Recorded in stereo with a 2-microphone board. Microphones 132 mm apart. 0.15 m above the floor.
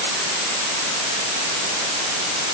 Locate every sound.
Only background noise.